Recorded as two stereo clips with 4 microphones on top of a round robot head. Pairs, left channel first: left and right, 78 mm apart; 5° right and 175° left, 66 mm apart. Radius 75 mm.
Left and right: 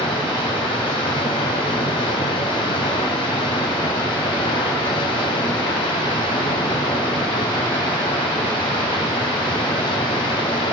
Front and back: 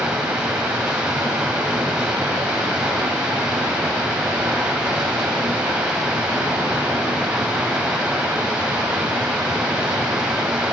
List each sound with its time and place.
0.0 s running water: 95° left, 3 m